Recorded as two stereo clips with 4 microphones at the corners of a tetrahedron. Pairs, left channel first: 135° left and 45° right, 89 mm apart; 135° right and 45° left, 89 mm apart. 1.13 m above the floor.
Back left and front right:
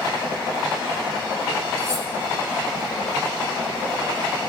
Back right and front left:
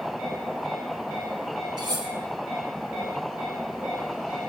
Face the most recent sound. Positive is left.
turn(degrees=10)